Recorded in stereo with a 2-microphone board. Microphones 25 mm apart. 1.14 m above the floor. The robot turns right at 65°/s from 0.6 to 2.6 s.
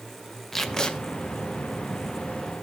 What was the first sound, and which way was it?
Tape being pulled, 15° left (ahead or behind).